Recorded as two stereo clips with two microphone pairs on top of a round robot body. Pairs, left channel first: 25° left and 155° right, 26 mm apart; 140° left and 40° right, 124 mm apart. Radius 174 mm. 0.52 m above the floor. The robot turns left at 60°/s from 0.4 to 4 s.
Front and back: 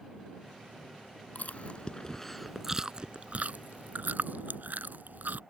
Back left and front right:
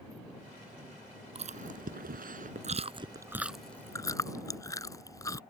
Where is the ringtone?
No ringtone in this recording.